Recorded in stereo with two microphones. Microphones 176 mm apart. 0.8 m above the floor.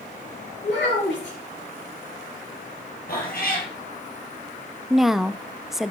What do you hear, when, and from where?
0.6 s a child speaking: 80° left, 6 m
3.1 s a cat meowing: 55° left (ahead or behind), 4.5 m
4.9 s a woman speaking: centre (ahead or behind), 0.6 m